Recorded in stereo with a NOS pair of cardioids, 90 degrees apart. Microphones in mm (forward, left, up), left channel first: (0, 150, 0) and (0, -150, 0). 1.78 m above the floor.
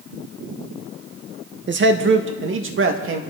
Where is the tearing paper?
No tearing paper in this recording.